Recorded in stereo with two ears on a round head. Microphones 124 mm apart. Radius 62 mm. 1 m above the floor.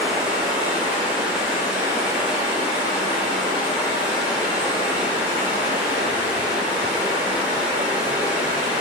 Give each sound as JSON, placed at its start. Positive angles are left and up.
{"t": 0.0, "sound": "running water", "side_deg": -10, "distance_m": 1.4}